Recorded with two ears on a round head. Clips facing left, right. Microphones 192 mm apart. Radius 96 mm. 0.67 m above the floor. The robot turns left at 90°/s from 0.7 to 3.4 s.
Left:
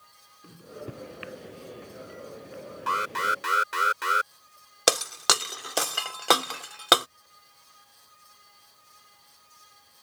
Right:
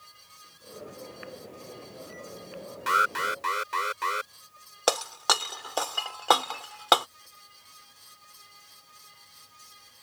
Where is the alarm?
145° right; by 4.3 s 165° left.